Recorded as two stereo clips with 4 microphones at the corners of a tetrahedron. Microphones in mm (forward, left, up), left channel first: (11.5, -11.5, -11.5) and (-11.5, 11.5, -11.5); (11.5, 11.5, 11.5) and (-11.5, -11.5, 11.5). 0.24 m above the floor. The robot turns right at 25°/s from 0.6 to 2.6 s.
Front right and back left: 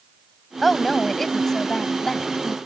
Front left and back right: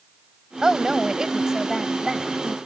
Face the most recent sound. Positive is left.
turn(degrees=-75)